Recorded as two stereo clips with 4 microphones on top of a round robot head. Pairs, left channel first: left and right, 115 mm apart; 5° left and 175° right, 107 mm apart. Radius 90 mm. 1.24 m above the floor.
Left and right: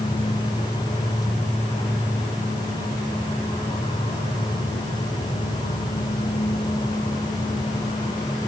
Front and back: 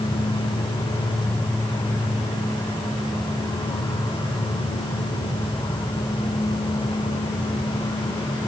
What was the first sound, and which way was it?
An insect, 65° left.